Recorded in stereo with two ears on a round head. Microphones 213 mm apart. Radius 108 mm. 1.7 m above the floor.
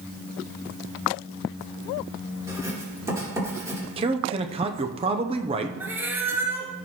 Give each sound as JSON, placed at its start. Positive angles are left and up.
{"t": 2.5, "sound": "writing", "side_deg": -15, "distance_m": 3.5}
{"t": 4.0, "sound": "a man speaking", "side_deg": -25, "distance_m": 0.7}
{"t": 5.8, "sound": "a cat meowing", "side_deg": -10, "distance_m": 1.0}